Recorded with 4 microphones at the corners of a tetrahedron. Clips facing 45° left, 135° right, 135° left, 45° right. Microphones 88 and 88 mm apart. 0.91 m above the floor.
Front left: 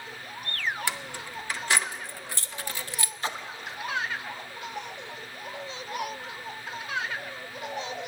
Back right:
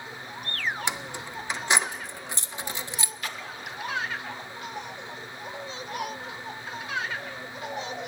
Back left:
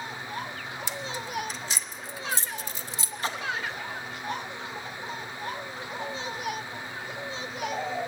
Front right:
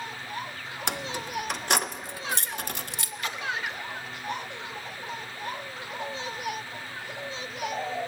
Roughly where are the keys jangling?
Ahead right.